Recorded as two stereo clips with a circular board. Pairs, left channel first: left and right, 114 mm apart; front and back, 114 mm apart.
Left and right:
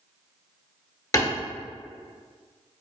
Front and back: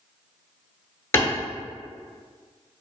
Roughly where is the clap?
Ahead left.